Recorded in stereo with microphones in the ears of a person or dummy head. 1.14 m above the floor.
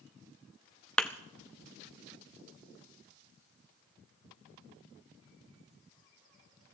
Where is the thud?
5° left (ahead or behind), 0.6 m.